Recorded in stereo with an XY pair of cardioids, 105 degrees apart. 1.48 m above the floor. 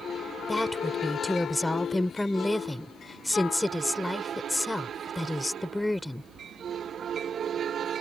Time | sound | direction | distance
0.5 | a woman speaking | 10° left | ?